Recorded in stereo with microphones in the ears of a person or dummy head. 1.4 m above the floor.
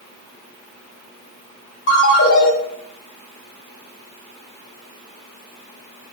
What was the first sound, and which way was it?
A ringtone, 65° left (ahead or behind).